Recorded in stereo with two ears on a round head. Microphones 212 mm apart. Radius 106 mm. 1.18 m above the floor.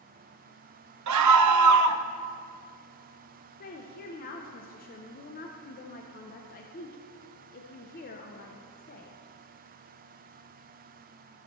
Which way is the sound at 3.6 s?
40° left (ahead or behind).